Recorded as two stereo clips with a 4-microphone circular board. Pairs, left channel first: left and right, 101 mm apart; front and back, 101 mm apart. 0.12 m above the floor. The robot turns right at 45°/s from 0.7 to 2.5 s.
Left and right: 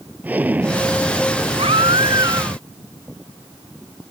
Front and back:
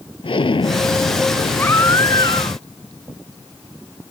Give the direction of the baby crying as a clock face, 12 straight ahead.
2 o'clock.